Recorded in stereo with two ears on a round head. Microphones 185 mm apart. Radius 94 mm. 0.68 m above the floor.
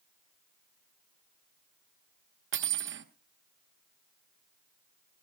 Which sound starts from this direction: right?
Cutlery clinking, at 2.5 s.